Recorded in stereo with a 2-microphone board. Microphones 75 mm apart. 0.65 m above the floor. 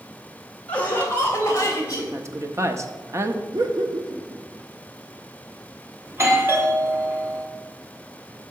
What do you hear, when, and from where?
0.7 s laughter: 20° left (ahead or behind), 2.5 m; by 2.0 s 45° left (ahead or behind), 3.5 m
2.1 s a woman speaking: 40° right (ahead or behind), 0.8 m
3.5 s laughter: 65° right (ahead or behind), 1.2 m
6.1 s a doorbell: 35° right (ahead or behind), 1.4 m